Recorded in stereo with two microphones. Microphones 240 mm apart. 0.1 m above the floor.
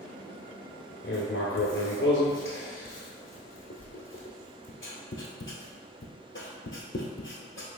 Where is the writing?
55° left (ahead or behind), 0.8 m.